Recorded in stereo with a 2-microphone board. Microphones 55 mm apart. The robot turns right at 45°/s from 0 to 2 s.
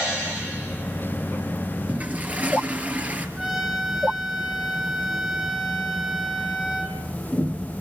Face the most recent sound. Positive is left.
turn(degrees=-10)  # may be behind; listen again after turning